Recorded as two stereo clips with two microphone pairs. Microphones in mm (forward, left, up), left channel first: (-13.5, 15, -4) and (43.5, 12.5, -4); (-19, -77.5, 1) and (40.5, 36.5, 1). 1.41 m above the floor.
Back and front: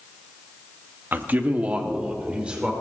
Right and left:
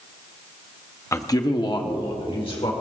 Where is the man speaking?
50° right, 0.7 m; by 2.7 s 75° right, 1.9 m.